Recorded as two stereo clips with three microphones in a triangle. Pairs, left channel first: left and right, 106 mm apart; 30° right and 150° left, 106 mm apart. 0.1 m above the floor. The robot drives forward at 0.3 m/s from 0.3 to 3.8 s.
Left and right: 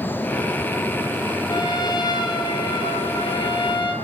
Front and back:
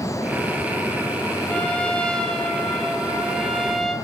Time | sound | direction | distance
1.5 | a trumpet | 50° left | 4 m